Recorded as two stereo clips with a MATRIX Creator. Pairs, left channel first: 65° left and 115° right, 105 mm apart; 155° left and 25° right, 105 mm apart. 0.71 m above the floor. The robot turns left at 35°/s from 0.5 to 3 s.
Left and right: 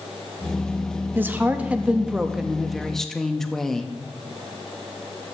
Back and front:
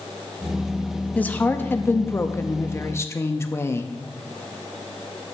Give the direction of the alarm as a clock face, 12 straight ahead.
I don't hear an alarm.